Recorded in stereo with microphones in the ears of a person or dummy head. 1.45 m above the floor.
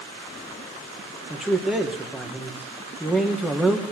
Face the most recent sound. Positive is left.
turn(degrees=-5)  # may be behind; listen again after turning